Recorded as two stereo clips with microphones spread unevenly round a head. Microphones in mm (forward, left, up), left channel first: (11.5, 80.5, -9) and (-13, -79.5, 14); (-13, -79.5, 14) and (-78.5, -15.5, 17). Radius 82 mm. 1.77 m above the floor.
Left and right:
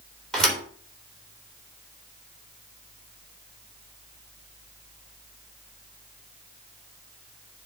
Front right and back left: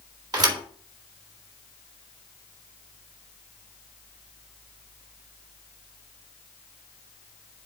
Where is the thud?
170° left, 3 m.